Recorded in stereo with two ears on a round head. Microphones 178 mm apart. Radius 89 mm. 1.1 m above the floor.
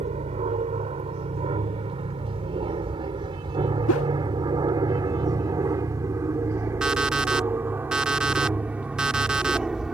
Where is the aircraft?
30° right (ahead or behind); by 9.9 s centre (ahead or behind).